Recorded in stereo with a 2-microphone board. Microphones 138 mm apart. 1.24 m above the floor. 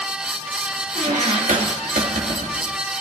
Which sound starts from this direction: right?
A squeak, at 0.9 s.